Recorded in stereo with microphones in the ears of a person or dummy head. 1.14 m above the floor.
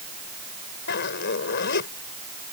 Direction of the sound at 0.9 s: 60° left (ahead or behind).